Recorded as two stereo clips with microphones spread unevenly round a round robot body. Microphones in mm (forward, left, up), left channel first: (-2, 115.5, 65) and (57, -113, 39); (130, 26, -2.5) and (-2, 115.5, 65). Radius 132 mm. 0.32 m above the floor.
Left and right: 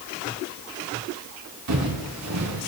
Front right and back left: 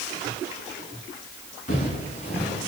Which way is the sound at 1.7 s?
95° right.